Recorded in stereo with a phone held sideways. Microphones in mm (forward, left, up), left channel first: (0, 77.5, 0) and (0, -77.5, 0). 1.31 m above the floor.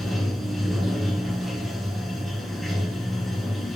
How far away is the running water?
About 1.5 m.